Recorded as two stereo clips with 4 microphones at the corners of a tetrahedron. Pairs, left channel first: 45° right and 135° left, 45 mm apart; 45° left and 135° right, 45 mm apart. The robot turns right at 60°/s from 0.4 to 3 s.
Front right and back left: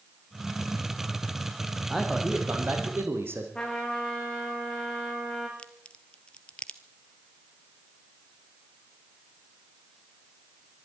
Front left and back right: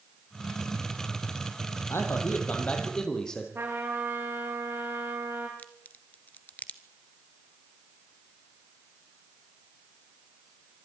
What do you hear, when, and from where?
1.9 s a man speaking: 55° left, 4.5 m; by 3.5 s 120° left, 4.5 m
3.5 s a trumpet: 115° right, 7.5 m
5.6 s a crack: 15° left, 1.2 m